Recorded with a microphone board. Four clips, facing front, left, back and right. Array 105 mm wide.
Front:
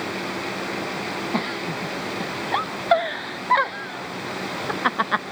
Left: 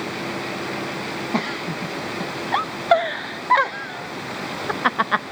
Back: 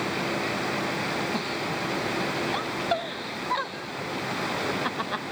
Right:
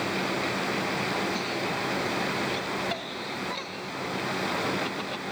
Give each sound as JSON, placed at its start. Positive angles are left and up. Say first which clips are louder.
{"t": 1.3, "sound": "a giggle", "louder": "left 4 dB, front 3 dB", "azimuth_deg": 60}